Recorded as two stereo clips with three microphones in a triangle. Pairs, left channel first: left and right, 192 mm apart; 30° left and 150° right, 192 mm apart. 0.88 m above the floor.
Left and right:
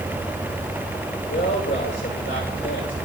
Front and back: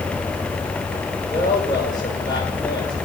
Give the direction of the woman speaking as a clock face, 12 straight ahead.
9 o'clock.